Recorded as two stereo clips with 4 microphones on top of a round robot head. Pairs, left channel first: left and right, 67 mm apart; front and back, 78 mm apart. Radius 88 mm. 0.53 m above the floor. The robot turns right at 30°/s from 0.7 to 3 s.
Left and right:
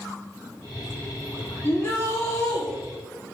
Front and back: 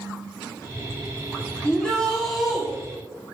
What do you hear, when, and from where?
1.6 s a shout: 65° left, 1.6 m; by 2.6 s 95° left, 1.6 m